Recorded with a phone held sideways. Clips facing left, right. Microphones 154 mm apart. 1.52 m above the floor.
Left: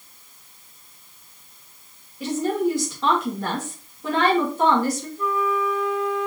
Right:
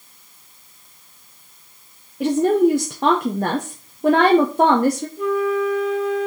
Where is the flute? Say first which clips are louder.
Right 4 dB; 80° right, 1.3 m.